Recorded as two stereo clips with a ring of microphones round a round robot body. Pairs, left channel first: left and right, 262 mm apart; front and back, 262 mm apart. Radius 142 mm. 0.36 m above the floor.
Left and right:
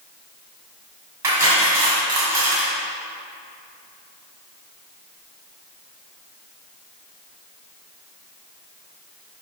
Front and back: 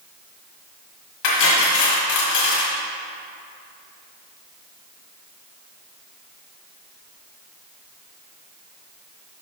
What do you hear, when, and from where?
1.2 s cutlery clinking: 10° right, 1.4 m